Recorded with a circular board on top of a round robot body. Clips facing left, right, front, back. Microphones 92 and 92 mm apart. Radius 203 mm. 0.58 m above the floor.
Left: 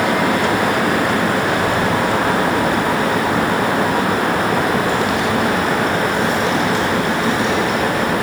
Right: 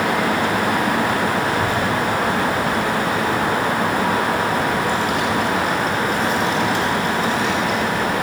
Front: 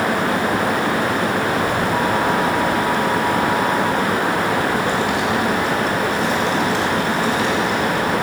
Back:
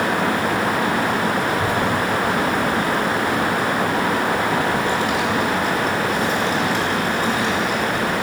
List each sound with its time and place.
1.5 s a child speaking: 135° right, 5.5 m